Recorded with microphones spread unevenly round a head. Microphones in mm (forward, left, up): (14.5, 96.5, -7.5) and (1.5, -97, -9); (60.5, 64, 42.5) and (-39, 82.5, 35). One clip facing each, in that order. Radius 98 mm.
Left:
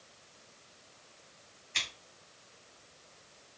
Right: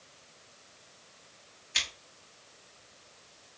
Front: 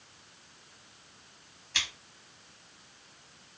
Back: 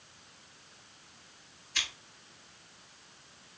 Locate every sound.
1.7 s scissors: 15° right, 2.5 m